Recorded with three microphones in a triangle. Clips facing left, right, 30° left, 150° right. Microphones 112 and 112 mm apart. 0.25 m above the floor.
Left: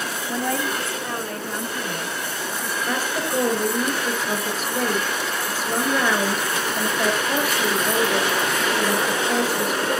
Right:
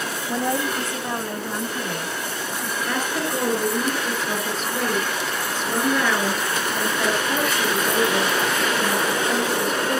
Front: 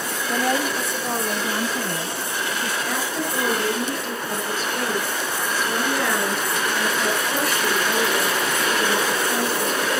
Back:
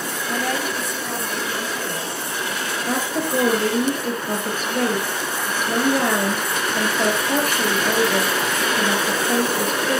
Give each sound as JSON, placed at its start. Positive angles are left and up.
{"t": 0.3, "sound": "a woman speaking", "azimuth_deg": -50, "distance_m": 0.9}
{"t": 2.9, "sound": "a woman speaking", "azimuth_deg": 175, "distance_m": 5.5}